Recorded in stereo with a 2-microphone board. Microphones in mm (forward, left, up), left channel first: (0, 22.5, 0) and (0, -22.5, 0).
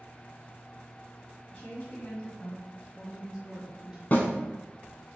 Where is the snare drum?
40° left (ahead or behind), 0.8 m.